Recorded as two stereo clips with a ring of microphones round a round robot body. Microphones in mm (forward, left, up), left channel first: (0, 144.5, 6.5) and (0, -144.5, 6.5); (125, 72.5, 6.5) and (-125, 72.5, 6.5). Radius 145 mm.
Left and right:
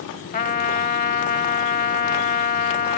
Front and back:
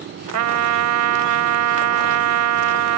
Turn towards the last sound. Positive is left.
turn(degrees=155)